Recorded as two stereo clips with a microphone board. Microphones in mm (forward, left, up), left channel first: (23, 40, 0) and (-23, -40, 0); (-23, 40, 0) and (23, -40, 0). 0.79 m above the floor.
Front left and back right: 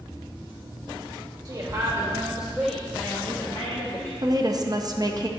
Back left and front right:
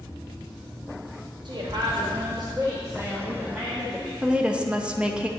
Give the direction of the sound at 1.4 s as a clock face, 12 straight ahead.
3 o'clock.